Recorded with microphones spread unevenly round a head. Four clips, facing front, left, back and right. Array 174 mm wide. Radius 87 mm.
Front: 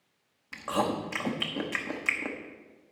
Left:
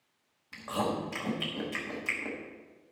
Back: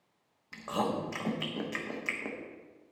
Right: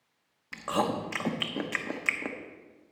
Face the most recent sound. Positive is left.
turn(degrees=-55)